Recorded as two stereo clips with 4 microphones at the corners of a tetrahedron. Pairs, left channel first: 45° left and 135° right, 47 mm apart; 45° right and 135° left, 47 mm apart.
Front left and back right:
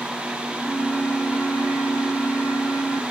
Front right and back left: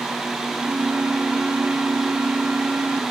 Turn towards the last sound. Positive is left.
turn(degrees=95)